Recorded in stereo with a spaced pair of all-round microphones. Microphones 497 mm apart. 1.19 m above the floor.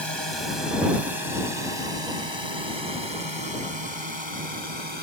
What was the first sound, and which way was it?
A drone, 55° right (ahead or behind).